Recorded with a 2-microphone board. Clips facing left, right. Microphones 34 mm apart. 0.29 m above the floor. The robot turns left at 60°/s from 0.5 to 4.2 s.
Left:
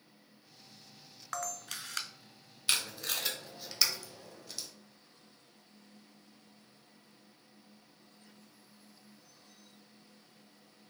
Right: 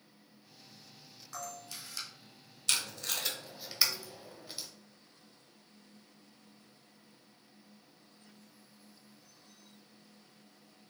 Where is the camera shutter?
110° left, 0.5 m; by 2.1 s 65° left, 0.5 m.